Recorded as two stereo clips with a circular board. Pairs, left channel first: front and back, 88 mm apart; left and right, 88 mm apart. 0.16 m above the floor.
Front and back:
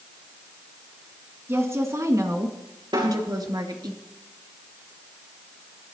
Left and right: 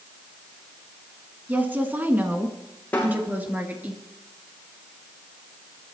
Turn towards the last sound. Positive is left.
turn(degrees=160)